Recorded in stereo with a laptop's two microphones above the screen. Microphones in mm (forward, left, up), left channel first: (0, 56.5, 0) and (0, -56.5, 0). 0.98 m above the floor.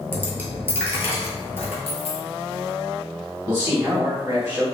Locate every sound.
0.1 s a dropped coin: 20° right (ahead or behind), 1.0 m
1.9 s a dropped coin: 70° left (ahead or behind), 0.6 m
3.5 s a man speaking: 25° right (ahead or behind), 2.0 m